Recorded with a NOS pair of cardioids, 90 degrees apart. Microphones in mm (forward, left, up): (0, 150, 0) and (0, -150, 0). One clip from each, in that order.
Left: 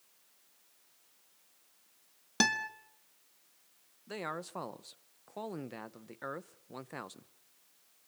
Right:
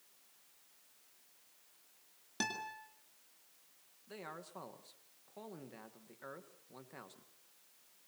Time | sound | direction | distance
2.4 | a guitar | 65° left | 1.9 m
4.1 | a man speaking | 55° left | 1.3 m